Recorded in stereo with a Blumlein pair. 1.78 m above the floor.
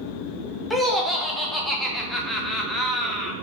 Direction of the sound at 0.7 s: Straight ahead.